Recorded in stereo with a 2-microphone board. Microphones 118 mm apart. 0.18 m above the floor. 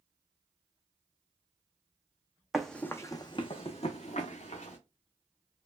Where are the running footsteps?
Centre (ahead or behind), 0.6 m; by 4.8 s 80° left, 1.2 m.